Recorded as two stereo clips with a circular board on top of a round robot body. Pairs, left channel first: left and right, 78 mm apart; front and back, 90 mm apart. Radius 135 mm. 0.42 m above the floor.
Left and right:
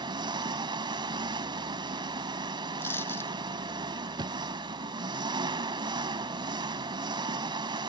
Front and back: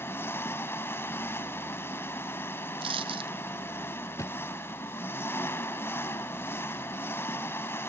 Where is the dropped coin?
155° left.